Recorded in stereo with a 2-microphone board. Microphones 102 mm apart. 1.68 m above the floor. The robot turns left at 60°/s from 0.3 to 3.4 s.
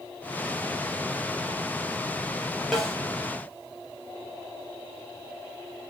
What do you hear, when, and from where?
2.7 s a snare drum: centre (ahead or behind), 0.7 m; by 3.0 s 5° left (ahead or behind), 0.7 m